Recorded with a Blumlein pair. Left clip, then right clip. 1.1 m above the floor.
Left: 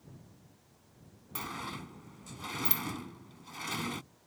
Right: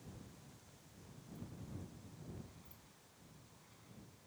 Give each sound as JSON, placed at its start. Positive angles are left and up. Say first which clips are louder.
{"t": 1.4, "sound": "a sliding door", "louder": "left 17 dB", "azimuth_deg": 45}